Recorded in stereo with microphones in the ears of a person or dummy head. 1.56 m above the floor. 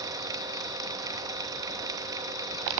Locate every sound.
0.0 s a fan: 20° right (ahead or behind), 2 m